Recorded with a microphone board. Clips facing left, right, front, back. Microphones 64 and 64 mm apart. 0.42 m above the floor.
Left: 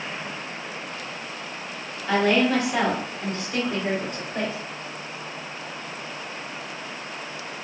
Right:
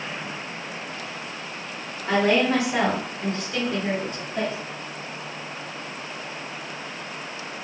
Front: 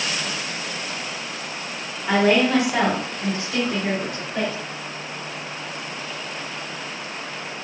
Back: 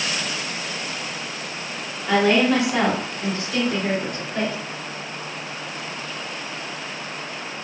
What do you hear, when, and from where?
2.1 s a woman speaking: 55° right, 1.3 m; by 4.5 s 105° left, 1.4 m